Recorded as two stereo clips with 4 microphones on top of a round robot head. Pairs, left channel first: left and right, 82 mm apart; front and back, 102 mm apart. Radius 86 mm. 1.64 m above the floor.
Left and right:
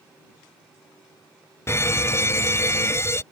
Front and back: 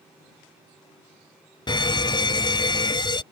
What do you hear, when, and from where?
1.7 s a fire alarm: 35° left